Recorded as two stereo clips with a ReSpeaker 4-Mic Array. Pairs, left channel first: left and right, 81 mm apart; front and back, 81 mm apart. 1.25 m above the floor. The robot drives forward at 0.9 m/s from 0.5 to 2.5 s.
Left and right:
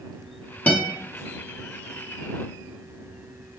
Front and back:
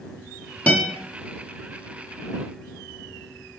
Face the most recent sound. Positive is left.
turn(degrees=170)